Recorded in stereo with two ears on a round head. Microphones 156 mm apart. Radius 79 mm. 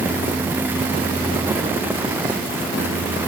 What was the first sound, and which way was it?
Only background noise.